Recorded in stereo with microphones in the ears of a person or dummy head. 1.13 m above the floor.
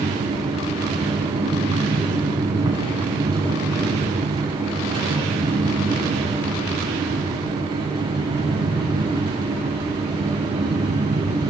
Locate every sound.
0.0 s a fan: 25° right (ahead or behind), 7.5 m